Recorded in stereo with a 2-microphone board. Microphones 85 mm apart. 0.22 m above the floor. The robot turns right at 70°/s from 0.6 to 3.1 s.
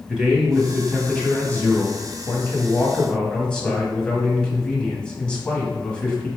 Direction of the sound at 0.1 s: 10° right (ahead or behind).